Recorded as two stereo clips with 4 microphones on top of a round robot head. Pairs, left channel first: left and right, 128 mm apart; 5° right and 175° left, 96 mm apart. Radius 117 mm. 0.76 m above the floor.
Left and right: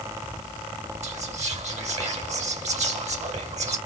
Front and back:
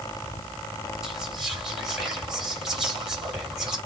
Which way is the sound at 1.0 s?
100° right.